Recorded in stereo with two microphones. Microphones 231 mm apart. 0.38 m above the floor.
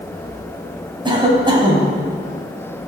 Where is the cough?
20° right (ahead or behind), 2.5 m.